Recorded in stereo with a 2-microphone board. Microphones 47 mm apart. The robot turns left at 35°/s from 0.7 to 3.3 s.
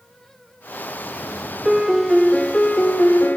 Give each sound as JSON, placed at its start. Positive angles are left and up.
{"t": 1.6, "sound": "a piano", "azimuth_deg": -175, "distance_m": 0.8}